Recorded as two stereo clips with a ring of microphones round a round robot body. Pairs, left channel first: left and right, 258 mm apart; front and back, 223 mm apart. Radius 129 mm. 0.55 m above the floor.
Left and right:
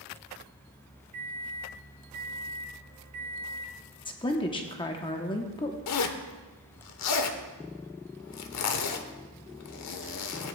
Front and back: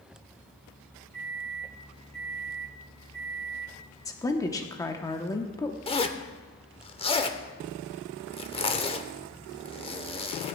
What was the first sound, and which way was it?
A microwave, 115° right.